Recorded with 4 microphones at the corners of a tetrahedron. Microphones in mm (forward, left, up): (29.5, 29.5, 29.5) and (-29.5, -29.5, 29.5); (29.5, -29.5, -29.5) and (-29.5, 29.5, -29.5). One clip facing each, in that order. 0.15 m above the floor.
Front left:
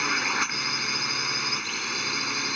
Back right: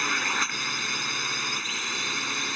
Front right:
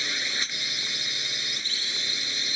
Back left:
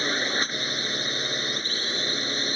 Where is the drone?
130° left.